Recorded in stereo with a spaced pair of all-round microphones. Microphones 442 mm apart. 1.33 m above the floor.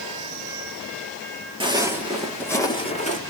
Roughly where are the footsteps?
Centre.